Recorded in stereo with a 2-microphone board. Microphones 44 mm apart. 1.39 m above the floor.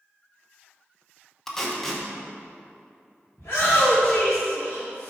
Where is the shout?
55° left (ahead or behind), 1.8 m.